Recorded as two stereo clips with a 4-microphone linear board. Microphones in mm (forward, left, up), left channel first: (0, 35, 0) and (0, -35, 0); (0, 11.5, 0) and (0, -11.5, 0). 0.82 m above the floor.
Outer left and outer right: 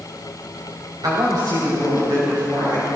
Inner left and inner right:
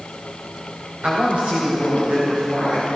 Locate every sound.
1.0 s a woman speaking: 75° right (ahead or behind), 3.5 m; by 2.9 s 65° right (ahead or behind), 6 m